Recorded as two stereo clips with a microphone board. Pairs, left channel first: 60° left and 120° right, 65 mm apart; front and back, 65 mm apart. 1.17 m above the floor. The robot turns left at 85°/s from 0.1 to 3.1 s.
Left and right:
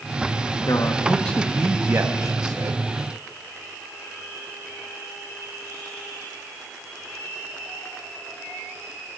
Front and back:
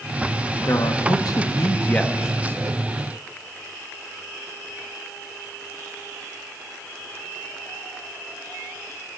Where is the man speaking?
40° left, 1.2 m; by 2.9 s 150° right, 1.2 m.